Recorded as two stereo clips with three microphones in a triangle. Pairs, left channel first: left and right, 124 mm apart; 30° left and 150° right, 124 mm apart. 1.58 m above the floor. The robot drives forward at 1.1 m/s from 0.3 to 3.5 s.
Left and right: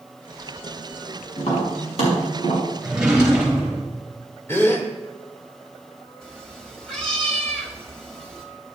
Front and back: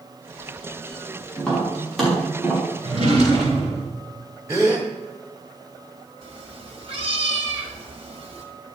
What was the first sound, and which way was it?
Tapping, 115° left.